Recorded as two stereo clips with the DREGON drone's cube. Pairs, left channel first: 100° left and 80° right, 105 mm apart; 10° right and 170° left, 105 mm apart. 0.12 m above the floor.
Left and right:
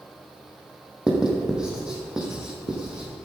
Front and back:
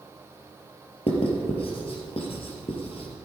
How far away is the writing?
About 3.5 m.